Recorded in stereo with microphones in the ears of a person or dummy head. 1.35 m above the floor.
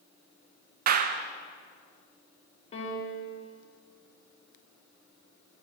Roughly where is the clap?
Right.